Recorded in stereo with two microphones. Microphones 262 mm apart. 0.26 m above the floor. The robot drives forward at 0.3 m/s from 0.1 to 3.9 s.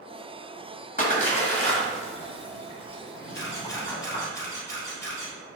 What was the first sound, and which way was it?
A splash, 35° left (ahead or behind).